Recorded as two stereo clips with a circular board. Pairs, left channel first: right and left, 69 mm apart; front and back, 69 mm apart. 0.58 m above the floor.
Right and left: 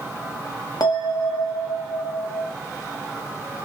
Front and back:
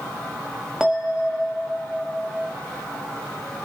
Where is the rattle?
No rattle in this recording.